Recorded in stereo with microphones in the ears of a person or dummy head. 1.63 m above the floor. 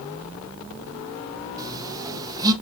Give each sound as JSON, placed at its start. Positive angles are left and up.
{"t": 1.6, "sound": "a phone buzzing", "side_deg": -25, "distance_m": 1.2}